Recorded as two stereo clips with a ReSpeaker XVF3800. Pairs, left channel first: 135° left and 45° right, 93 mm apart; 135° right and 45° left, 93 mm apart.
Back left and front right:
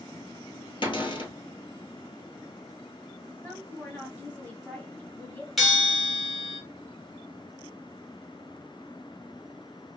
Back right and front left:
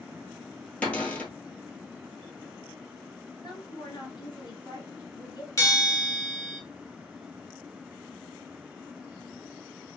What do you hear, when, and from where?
0.8 s a cupboard door: 150° left, 1.3 m
3.4 s a woman speaking: 160° right, 2.0 m
5.6 s a bell: 135° right, 1.6 m